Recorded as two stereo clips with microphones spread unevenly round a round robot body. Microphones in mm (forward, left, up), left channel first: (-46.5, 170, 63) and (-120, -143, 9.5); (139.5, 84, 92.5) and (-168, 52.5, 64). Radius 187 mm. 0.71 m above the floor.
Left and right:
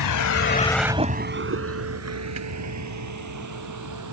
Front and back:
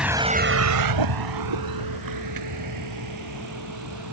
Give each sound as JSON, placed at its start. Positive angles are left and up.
{"t": 0.0, "sound": "a vehicle", "azimuth_deg": 100}